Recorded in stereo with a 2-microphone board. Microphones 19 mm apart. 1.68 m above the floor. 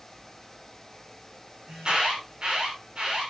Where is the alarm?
50° right (ahead or behind), 6 m.